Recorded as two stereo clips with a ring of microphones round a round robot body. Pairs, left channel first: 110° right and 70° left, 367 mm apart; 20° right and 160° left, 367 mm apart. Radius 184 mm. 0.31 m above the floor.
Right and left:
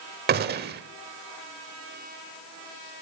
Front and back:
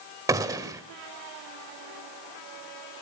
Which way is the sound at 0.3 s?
85° left.